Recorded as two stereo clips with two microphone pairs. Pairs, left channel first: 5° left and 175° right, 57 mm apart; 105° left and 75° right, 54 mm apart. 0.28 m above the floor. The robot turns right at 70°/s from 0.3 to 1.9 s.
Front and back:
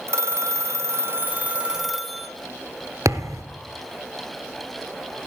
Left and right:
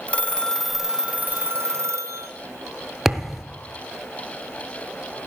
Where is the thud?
160° right, 1.1 m.